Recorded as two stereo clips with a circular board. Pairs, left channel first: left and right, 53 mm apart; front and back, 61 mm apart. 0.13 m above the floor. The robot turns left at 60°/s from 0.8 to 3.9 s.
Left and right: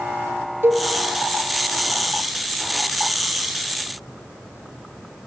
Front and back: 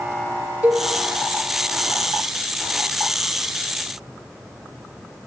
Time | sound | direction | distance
0.6 | a cowbell | 120° right | 2 m